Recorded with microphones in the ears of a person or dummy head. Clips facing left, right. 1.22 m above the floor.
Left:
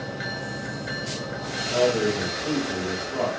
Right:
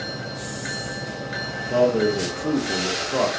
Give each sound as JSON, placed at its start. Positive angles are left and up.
{"t": 1.7, "sound": "a man speaking", "side_deg": -70, "distance_m": 0.9}